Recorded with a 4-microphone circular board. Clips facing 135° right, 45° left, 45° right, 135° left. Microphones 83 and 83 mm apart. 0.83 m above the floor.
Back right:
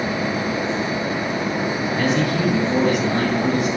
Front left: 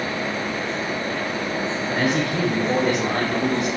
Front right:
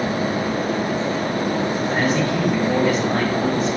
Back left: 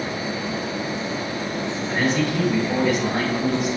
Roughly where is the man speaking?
Ahead left.